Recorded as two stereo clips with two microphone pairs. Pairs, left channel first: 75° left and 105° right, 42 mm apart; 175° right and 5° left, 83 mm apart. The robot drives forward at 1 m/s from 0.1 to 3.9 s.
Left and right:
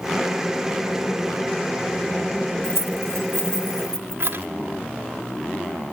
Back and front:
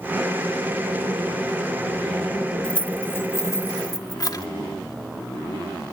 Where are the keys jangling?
95° right, 1.4 m; by 4.5 s 135° right, 1.9 m.